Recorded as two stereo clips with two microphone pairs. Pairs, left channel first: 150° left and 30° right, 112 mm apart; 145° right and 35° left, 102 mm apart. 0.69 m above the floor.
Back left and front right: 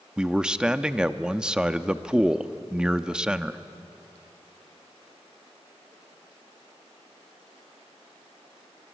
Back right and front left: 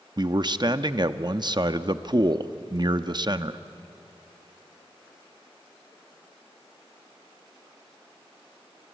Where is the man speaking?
45° left, 0.7 m.